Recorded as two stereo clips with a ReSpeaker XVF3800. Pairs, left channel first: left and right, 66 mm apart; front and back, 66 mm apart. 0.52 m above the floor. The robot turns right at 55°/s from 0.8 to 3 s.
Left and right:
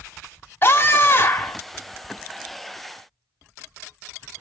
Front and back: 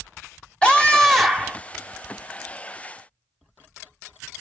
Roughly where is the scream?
Ahead left.